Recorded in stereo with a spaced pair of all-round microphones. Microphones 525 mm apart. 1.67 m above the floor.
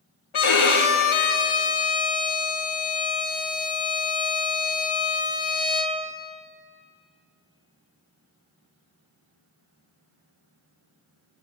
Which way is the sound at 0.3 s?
75° left (ahead or behind).